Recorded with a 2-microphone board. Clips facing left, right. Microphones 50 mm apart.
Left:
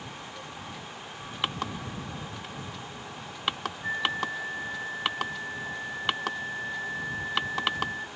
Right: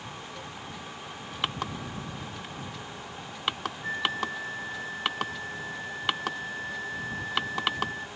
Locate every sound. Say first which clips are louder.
3.8 s a flute: left 1 dB; 5° left (ahead or behind)